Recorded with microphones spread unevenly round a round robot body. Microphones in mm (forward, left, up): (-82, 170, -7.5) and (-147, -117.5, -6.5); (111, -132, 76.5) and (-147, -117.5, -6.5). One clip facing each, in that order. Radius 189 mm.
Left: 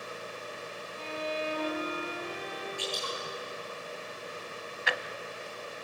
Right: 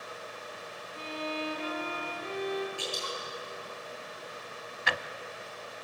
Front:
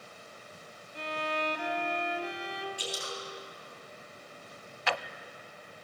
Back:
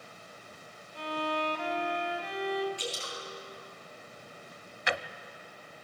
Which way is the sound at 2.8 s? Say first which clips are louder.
Left 1 dB, even; 120° right.